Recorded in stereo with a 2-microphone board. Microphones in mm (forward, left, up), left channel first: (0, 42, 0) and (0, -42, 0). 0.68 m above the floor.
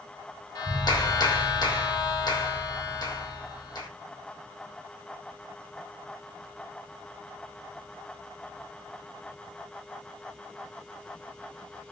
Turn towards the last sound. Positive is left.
turn(degrees=50)  # may be behind; listen again after turning